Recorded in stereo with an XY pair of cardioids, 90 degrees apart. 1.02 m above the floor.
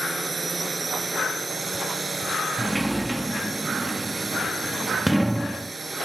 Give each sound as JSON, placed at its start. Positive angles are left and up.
{"t": 0.0, "sound": "a drone", "azimuth_deg": -30}
{"t": 2.6, "sound": "a sliding door", "azimuth_deg": -10}